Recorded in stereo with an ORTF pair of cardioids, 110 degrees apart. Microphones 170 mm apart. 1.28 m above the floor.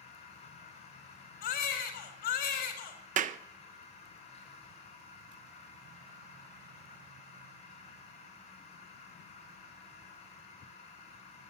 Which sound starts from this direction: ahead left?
A machine running, at 0.0 s.